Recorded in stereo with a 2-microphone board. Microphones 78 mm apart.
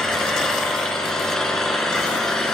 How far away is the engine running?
About 2 m.